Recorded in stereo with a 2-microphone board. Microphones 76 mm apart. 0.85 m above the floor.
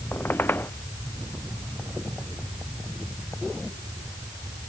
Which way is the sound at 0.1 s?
25° left (ahead or behind).